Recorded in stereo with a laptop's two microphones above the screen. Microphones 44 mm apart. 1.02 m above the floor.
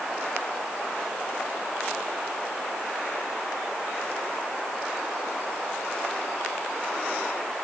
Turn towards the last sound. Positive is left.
No sound to turn to.